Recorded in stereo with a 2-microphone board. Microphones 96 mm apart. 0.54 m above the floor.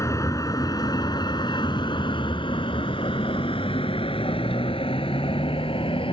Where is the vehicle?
35° left (ahead or behind); by 6.1 s 80° left.